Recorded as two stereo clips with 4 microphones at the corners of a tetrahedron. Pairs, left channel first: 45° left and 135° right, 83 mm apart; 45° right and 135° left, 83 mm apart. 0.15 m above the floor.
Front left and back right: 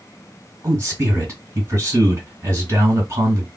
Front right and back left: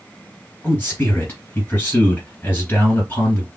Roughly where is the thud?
No thud in this recording.